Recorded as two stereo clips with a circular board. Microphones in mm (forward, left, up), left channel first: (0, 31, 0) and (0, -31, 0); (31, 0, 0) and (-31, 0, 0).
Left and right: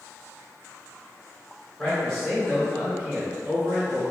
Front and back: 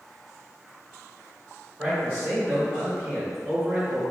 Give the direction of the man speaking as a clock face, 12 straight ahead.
7 o'clock.